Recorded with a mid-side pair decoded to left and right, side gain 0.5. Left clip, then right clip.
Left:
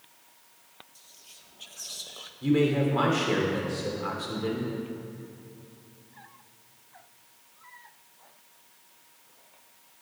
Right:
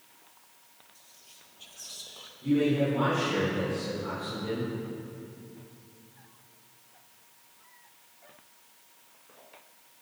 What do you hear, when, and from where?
0.9 s whispering: 30° left, 0.8 m
2.4 s a man speaking: 65° left, 3 m